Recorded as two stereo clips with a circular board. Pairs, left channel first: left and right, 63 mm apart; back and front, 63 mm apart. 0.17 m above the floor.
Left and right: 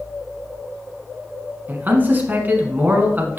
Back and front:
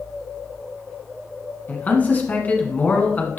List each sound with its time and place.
1.7 s a man speaking: 130° right, 1.3 m